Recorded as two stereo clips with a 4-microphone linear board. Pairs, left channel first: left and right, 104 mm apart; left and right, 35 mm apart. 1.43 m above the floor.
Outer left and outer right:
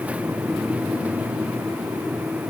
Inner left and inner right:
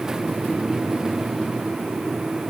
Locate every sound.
Only background noise.